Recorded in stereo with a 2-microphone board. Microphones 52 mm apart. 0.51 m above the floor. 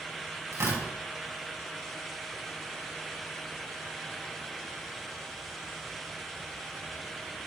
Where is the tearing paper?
75° right (ahead or behind), 5 m.